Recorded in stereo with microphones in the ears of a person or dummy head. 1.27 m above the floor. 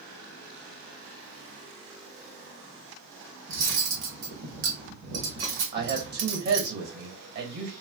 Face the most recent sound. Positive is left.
turn(degrees=-50)  # may be behind; listen again after turning